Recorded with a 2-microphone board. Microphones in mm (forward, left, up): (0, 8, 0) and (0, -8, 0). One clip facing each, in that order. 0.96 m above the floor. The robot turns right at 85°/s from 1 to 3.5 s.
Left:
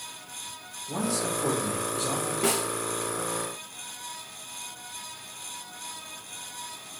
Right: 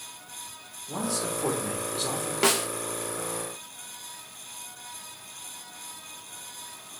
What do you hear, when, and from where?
0.9 s a man speaking: straight behind, 2.5 m; by 2.3 s 65° right, 2.5 m
2.4 s a snare drum: 60° right (ahead or behind), 1.1 m